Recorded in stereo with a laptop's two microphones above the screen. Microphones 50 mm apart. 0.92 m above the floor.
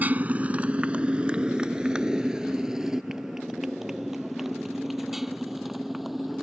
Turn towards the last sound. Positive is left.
turn(degrees=-5)  # may be behind; listen again after turning